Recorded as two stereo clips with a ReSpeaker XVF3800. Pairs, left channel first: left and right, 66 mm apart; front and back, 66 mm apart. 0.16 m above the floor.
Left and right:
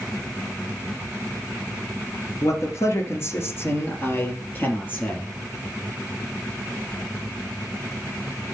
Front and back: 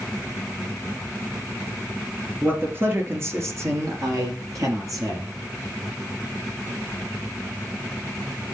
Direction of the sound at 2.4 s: 125° left.